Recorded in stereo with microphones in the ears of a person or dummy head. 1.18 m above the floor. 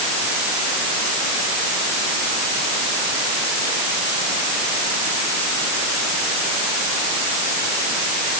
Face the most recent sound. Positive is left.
No sound to turn to.